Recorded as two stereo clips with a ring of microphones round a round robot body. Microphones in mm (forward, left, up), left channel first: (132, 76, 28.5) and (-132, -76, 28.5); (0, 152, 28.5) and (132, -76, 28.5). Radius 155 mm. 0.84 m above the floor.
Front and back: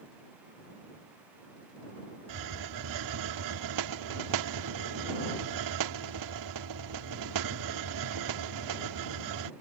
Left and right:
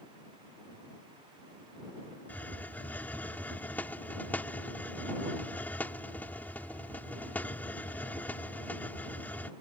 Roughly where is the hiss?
Behind right.